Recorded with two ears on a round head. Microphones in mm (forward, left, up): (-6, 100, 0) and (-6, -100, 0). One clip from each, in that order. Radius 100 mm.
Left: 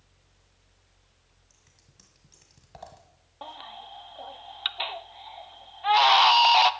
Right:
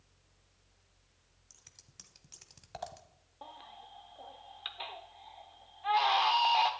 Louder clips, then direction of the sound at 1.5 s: Right 6 dB; 35° right (ahead or behind).